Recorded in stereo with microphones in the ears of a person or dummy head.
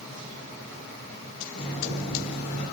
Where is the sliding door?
50° left (ahead or behind), 5.5 m.